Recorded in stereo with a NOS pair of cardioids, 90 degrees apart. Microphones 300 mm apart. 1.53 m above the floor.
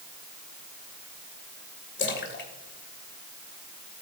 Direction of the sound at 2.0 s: 40° left.